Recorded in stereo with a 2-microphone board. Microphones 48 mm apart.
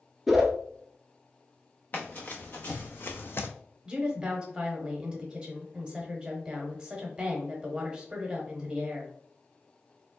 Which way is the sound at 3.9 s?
20° right (ahead or behind).